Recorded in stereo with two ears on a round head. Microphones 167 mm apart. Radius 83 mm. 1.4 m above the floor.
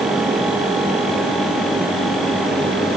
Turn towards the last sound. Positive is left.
No sound to turn to.